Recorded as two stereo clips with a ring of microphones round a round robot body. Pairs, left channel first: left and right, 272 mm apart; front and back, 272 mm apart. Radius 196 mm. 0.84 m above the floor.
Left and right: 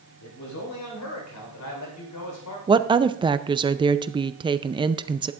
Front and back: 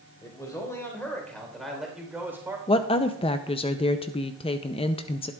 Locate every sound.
0.2 s a man speaking: 75° left, 4.5 m; by 2.6 s 100° left, 3.5 m
2.7 s a woman speaking: 40° right, 0.5 m